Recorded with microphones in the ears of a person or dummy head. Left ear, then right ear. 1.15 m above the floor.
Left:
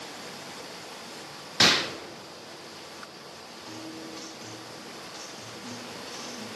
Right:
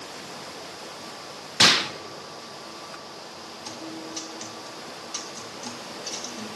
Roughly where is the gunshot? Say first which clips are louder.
Right 3 dB; centre.